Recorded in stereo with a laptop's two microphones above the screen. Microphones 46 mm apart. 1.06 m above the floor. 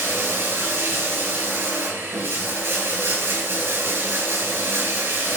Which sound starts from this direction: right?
Running water, at 0.0 s.